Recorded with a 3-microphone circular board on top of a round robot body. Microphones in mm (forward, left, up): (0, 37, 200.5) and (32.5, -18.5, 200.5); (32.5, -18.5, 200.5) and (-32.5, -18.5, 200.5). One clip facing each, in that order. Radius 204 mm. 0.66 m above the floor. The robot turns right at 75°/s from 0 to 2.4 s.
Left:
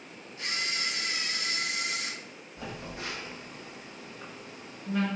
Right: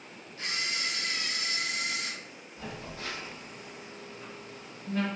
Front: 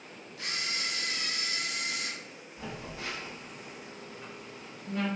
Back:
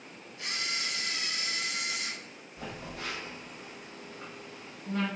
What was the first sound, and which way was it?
A camera shutter, 10° right.